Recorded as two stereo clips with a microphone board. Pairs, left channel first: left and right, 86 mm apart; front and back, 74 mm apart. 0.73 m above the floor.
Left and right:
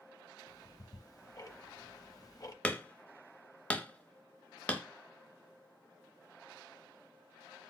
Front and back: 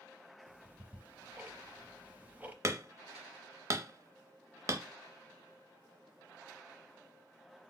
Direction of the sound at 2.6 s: 155° left.